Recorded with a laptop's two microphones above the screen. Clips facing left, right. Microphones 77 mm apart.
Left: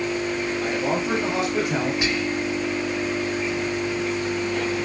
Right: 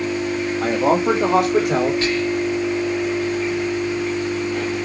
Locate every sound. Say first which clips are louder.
0.6 s a man speaking: right 9 dB; 45° right (ahead or behind), 1.7 m; by 1.9 s 55° right (ahead or behind), 3 m
2.0 s whispering: right 4 dB; 15° left (ahead or behind), 3 m